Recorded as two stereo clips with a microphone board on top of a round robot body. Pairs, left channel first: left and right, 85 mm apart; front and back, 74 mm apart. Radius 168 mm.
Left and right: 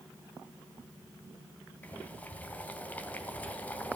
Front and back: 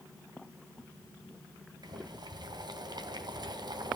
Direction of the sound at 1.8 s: 160° left.